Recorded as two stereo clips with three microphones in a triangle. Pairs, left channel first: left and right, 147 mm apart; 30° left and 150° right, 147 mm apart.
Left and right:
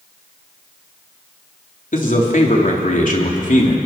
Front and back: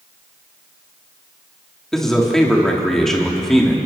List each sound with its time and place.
1.9 s a man speaking: 115° left, 3.5 m